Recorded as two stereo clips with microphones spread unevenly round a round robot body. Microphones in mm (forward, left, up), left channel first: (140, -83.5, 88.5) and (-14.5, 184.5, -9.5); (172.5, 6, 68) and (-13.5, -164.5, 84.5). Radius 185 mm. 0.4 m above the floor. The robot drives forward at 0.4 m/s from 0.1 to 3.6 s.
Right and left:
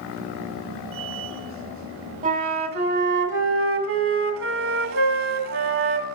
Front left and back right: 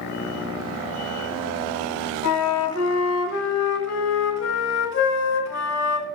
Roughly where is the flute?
Ahead left.